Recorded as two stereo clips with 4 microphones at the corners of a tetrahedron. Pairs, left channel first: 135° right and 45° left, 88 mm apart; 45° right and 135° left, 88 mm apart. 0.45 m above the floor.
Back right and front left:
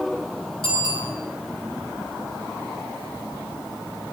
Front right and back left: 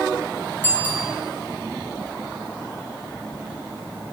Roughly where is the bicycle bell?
Behind right.